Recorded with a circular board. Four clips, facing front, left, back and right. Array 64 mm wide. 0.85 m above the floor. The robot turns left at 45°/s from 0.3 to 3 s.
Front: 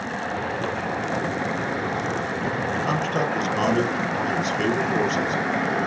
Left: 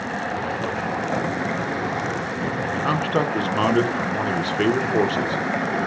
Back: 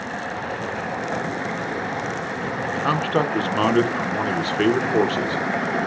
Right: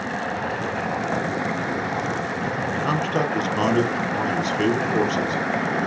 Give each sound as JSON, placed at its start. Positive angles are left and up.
{"t": 2.8, "sound": "a man speaking", "azimuth_deg": 155, "distance_m": 0.6}